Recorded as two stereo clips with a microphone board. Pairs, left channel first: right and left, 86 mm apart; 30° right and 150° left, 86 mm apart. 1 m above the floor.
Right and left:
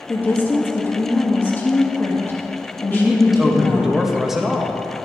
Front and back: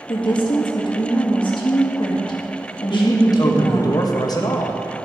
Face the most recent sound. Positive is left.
turn(degrees=5)